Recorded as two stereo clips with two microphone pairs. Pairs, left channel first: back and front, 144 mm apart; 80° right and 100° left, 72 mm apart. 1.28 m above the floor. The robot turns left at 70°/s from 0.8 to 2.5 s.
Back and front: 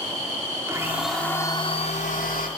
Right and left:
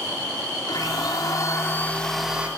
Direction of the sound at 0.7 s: 70° right.